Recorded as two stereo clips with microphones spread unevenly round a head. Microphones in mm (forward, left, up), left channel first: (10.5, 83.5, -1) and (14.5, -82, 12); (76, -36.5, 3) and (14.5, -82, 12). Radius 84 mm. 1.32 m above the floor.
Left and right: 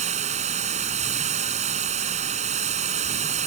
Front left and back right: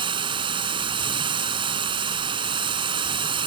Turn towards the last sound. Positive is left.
turn(degrees=-140)